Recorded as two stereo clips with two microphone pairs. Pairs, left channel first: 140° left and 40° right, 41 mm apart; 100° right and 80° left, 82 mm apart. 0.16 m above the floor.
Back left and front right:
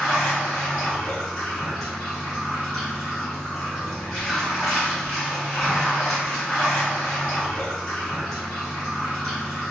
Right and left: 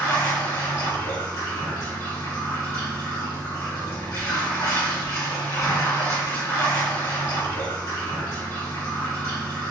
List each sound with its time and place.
0.0 s running water: 130° right, 1.6 m